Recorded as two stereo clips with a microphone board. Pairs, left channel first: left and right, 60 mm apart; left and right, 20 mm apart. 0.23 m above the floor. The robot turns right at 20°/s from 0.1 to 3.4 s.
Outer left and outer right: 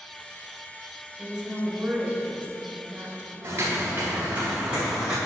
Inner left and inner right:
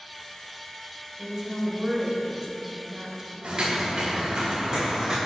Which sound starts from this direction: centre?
A woman speaking, at 1.2 s.